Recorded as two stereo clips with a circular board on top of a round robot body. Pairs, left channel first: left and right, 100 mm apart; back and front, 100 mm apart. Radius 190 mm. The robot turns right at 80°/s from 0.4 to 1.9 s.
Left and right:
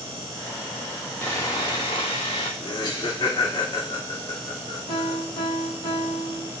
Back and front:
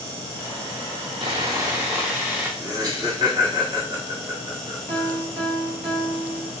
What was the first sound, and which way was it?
Sawing, 15° left.